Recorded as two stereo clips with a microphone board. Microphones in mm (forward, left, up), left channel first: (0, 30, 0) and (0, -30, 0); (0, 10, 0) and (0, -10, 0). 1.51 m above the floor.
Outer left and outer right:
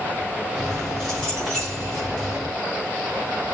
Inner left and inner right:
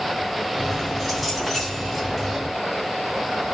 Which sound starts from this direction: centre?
Keys jangling, at 0.6 s.